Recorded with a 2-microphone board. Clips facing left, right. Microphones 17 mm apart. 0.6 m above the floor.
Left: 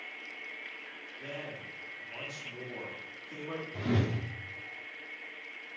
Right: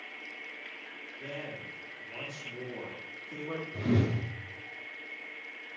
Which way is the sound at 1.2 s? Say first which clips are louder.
Right 1 dB; 15° left (ahead or behind).